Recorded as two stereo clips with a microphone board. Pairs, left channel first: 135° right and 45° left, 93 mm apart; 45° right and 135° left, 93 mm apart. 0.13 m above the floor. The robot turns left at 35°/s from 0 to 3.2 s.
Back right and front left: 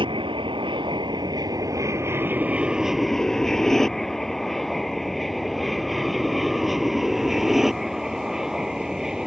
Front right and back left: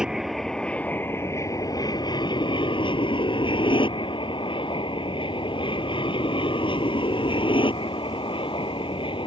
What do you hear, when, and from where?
0.0 s an aircraft: 55° left; by 9.3 s 40° right